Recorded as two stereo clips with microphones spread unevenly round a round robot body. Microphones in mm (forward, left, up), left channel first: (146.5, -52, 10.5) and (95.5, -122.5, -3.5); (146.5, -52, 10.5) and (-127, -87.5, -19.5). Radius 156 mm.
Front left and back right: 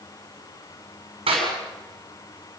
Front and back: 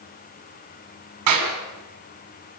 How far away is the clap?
About 6 m.